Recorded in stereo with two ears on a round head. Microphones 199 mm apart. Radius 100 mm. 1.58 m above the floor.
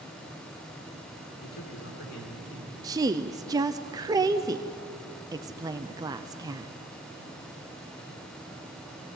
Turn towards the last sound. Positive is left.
turn(degrees=-15)  # may be behind; listen again after turning